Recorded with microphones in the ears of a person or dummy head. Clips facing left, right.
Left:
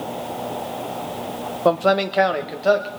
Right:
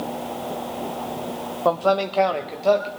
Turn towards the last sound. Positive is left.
turn(degrees=10)  # may be behind; listen again after turning